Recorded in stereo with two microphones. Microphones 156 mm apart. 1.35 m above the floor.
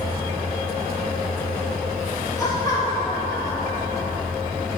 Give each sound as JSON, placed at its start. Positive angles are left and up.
{"t": 2.4, "sound": "laughter", "side_deg": 20, "distance_m": 2.5}